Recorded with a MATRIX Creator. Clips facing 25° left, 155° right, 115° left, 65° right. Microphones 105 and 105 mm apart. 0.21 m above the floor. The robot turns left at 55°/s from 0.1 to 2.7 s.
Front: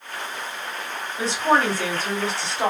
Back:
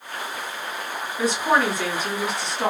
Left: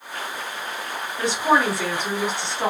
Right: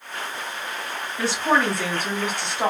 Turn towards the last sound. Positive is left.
turn(degrees=-25)